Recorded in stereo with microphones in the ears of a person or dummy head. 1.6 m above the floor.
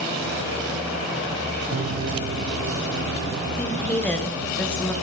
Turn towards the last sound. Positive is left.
turn(degrees=10)  # may be behind; listen again after turning